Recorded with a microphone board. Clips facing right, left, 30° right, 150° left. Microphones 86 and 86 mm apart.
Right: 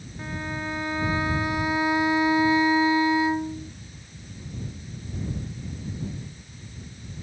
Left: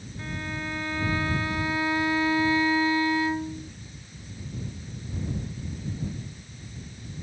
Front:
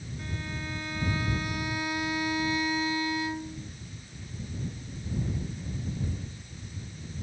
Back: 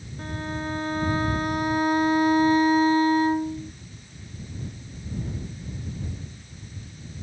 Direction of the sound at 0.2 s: 160° right.